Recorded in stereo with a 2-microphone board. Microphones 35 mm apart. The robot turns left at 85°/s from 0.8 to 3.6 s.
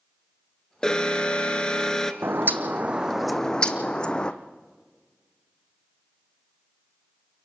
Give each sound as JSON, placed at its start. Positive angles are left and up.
{"t": 0.8, "sound": "an alarm", "side_deg": 20, "distance_m": 1.2}
{"t": 2.2, "sound": "a bird", "azimuth_deg": -90, "distance_m": 1.2}